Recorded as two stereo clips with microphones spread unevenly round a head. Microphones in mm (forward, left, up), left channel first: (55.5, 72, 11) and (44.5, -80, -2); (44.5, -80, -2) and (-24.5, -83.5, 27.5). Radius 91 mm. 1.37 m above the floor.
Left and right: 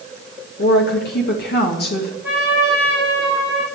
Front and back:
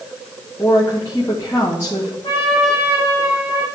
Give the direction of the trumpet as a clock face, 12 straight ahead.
10 o'clock.